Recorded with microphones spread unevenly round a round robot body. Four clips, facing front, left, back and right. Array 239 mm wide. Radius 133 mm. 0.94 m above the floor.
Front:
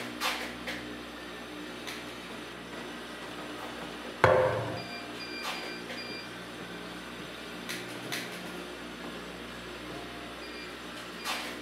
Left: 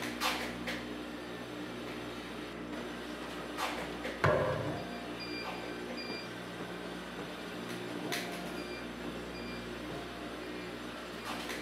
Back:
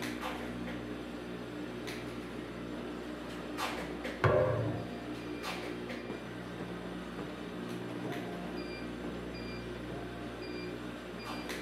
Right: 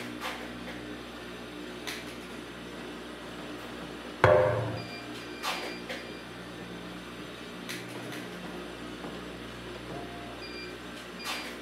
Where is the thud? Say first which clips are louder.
Right 8 dB, front 5 dB; 30° right, 0.8 m.